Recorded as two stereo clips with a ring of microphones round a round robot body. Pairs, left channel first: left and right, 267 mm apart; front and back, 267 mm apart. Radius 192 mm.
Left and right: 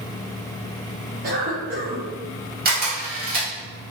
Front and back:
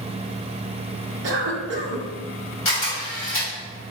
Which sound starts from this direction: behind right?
A cough, at 1.2 s.